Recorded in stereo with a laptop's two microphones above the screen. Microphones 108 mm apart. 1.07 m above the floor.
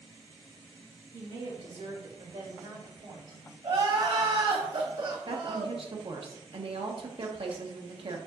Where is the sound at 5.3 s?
55° right (ahead or behind), 0.8 m.